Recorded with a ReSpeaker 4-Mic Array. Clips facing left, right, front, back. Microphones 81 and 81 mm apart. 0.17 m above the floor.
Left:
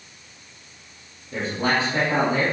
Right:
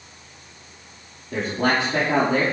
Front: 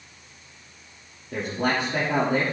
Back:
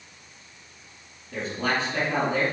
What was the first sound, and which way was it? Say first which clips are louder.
A man speaking: right 2 dB, front 2 dB; 40° right.